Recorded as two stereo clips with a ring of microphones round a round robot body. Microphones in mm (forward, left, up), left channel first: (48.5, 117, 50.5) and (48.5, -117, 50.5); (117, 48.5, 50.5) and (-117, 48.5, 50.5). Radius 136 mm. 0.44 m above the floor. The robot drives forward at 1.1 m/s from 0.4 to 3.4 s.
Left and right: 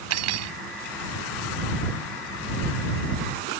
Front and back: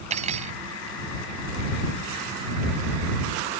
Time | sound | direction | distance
0.1 | cutlery clinking | 115° right | ?